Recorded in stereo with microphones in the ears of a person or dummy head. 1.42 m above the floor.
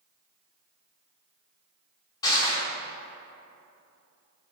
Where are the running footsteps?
No running footsteps in this recording.